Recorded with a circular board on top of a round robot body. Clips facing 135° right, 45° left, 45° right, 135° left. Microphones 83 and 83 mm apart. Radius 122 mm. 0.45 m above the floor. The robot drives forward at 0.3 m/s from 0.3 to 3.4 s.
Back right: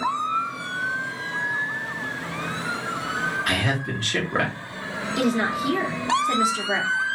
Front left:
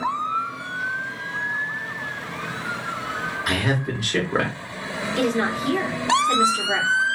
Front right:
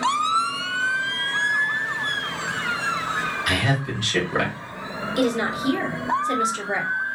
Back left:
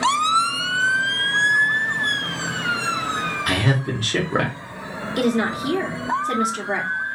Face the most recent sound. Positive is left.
turn(degrees=150)